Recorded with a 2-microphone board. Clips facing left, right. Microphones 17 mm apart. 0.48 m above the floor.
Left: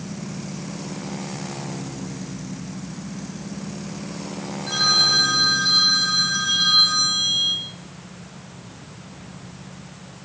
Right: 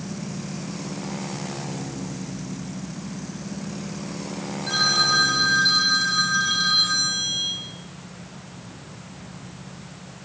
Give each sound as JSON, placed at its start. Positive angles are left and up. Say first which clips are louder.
{"t": 4.7, "sound": "a phone ringing", "louder": "left 2 dB", "side_deg": -5, "distance_m": 4.0}